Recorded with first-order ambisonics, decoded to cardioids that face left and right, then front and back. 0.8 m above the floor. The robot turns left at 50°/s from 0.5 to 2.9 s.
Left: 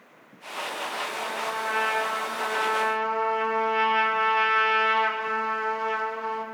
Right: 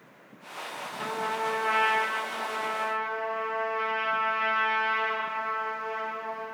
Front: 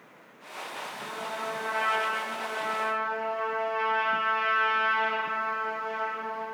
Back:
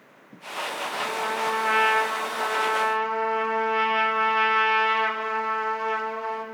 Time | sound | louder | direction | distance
1.0 | a trumpet | right 4 dB, back 9 dB | 130° right | 3 m